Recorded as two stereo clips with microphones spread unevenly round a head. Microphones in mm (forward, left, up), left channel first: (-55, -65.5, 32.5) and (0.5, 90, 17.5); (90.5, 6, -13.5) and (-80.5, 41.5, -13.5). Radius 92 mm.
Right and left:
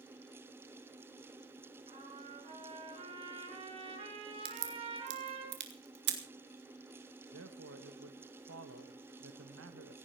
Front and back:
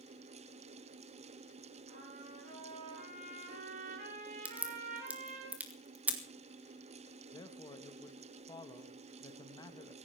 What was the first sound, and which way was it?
A trumpet, 125° left.